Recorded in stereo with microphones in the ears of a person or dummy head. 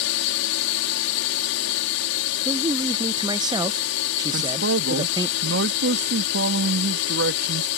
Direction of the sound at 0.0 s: 65° left (ahead or behind).